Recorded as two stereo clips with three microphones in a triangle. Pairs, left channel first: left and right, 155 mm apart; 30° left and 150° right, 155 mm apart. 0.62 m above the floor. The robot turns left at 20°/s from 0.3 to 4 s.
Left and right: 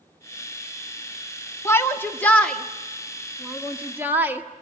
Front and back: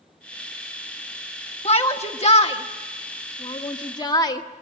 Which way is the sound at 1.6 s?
30° left.